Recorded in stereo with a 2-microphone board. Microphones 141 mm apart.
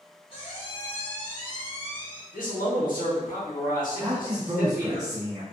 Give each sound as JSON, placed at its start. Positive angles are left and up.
{"t": 0.3, "sound": "a squeak", "side_deg": 35, "distance_m": 0.8}
{"t": 2.3, "sound": "a man speaking", "side_deg": 80, "distance_m": 1.0}
{"t": 4.0, "sound": "a man speaking", "side_deg": -25, "distance_m": 0.5}